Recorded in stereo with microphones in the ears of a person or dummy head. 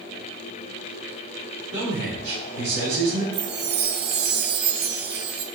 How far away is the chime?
About 0.5 m.